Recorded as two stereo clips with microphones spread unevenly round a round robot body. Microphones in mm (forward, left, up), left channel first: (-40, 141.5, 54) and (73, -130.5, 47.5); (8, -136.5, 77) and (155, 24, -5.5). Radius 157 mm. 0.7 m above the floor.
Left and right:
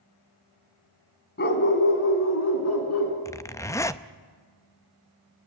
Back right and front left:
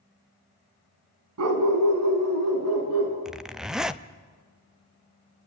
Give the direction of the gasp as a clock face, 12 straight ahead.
I don't hear a gasp.